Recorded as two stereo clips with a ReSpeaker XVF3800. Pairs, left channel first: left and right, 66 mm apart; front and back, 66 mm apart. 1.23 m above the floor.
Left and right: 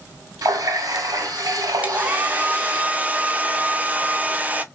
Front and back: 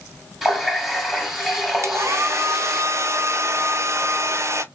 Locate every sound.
0.4 s a running tap: 90° right, 2 m
1.8 s a hair dryer: 150° right, 0.6 m